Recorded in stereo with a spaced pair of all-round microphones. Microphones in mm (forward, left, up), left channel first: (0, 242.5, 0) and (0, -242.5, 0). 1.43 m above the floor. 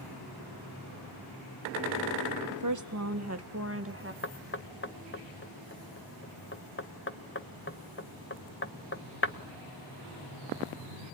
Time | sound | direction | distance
2.5 | a woman speaking | 40° right (ahead or behind) | 1.0 m
4.2 | knocking | 25° left (ahead or behind) | 1.0 m